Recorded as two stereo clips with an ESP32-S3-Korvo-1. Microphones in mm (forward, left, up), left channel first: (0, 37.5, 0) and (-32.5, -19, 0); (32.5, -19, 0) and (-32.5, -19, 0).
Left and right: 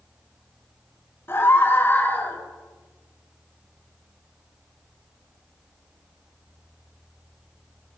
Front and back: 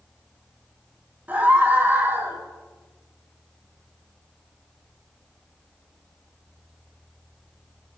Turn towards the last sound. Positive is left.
turn(degrees=125)